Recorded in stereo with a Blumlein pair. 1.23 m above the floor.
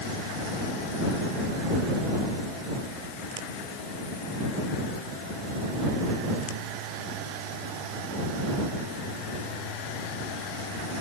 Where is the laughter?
I don't hear laughter.